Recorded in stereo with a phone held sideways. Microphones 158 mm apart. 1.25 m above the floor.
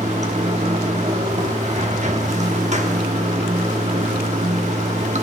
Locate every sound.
0.0 s running water: 50° right (ahead or behind), 1.0 m